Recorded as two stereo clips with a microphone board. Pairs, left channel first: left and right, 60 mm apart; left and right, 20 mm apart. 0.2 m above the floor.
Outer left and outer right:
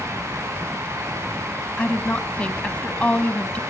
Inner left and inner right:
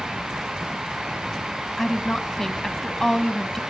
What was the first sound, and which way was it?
A woman speaking, 20° left (ahead or behind).